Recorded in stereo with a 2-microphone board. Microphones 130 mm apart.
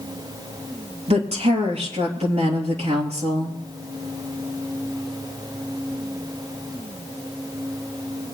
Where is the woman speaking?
55° right (ahead or behind), 2.5 m.